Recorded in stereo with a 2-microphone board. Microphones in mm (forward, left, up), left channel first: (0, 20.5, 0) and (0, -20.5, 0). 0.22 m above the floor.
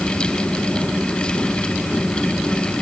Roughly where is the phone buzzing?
I don't hear a phone buzzing.